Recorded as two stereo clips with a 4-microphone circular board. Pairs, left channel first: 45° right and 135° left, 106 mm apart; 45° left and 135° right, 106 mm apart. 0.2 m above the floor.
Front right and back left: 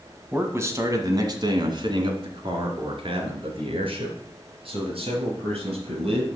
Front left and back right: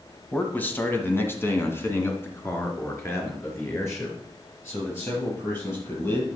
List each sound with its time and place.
0.3 s a man speaking: 95° left, 1.2 m; by 6.3 s 110° left, 5 m